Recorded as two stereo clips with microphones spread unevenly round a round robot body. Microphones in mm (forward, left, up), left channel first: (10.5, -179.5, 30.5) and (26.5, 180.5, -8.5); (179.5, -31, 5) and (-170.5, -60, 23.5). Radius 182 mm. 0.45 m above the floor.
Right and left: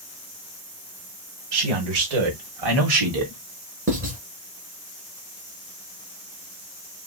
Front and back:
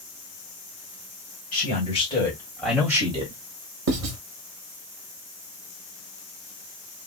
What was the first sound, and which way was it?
A man speaking, 75° left.